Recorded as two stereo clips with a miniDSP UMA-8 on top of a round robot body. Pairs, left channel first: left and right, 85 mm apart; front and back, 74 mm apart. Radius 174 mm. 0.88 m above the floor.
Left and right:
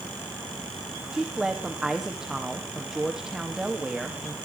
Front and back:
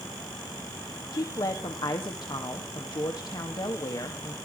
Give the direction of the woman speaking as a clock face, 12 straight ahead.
12 o'clock.